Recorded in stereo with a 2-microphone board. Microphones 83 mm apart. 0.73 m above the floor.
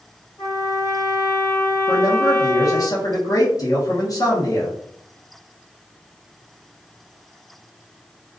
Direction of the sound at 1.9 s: 50° left (ahead or behind).